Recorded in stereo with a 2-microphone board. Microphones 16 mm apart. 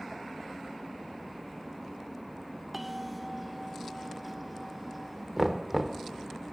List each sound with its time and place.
2.7 s a bell: 5° right (ahead or behind), 0.6 m
5.4 s knocking: 15° right (ahead or behind), 0.9 m